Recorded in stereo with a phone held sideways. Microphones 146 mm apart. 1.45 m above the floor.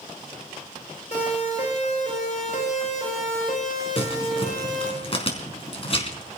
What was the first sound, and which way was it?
A siren, 50° left (ahead or behind).